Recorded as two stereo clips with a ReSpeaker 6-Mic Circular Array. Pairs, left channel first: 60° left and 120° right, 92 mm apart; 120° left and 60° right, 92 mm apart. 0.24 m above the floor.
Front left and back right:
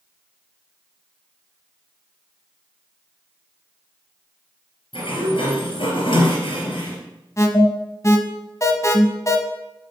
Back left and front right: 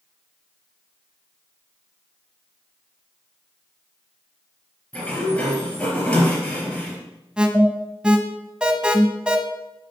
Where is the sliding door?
40° left, 3.5 m.